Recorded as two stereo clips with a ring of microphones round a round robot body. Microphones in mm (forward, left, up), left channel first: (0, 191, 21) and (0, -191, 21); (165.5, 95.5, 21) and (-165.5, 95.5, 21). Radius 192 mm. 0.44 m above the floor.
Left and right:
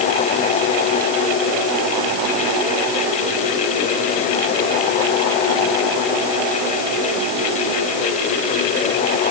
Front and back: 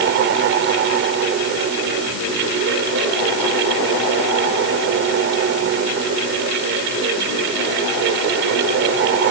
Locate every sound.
Only background noise.